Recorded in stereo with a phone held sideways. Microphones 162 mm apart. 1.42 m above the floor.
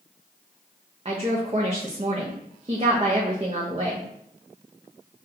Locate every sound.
1.1 s a woman speaking: 35° right (ahead or behind), 0.5 m